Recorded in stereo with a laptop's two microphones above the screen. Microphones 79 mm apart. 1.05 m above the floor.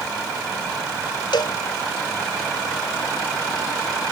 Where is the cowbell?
80° left.